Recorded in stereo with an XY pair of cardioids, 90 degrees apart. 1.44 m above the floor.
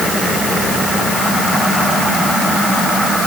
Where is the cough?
No cough in this recording.